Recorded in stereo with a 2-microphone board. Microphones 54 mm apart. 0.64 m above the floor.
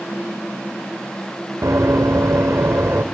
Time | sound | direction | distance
1.6 | running footsteps | 50° right (ahead or behind) | 3 m